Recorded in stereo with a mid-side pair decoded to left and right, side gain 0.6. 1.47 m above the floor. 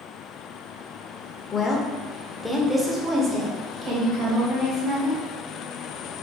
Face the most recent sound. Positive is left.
turn(degrees=-45)